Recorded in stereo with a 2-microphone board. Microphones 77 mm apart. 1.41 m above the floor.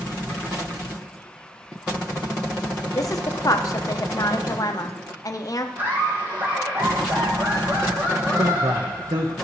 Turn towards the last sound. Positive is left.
turn(degrees=-60)  # may be behind; listen again after turning